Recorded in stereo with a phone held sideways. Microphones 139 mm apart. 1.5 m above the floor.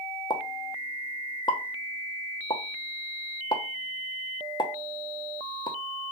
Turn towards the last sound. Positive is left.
turn(degrees=35)  # may be behind; listen again after turning